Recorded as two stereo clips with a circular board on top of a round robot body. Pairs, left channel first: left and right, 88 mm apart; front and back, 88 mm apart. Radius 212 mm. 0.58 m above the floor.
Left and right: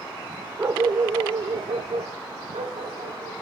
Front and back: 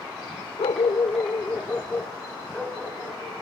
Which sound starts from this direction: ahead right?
A dog barking, at 0.6 s.